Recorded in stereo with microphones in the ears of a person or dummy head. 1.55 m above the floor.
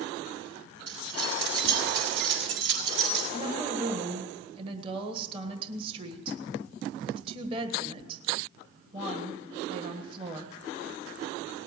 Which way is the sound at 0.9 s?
75° right (ahead or behind).